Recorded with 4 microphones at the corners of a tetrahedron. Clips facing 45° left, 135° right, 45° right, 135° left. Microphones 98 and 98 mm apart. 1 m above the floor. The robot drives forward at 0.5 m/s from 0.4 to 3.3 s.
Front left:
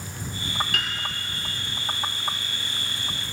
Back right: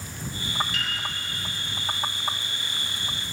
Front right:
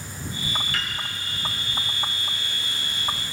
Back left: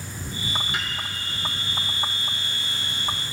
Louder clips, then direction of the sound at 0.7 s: Front left 2 dB, back left 1 dB; 65° left.